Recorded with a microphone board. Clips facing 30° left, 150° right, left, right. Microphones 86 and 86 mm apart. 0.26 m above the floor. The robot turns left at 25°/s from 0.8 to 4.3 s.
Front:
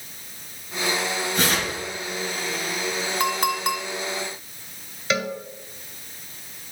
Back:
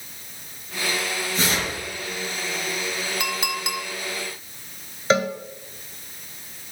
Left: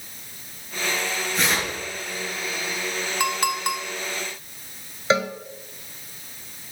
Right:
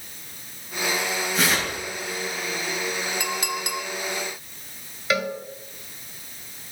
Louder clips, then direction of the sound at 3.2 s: Front 9 dB, left 5 dB; 75° left.